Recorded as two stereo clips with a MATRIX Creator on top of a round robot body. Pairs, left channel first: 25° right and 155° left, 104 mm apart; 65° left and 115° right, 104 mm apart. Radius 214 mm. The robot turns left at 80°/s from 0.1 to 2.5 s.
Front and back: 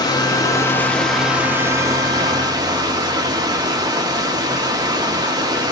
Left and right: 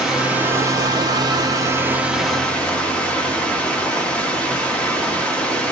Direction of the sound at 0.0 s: 30° right.